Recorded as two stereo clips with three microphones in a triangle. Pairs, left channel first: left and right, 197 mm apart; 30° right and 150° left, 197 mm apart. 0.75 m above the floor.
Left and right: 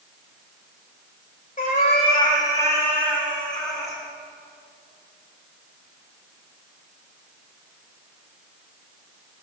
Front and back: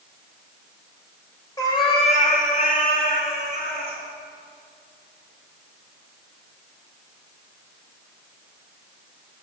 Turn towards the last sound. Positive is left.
turn(degrees=0)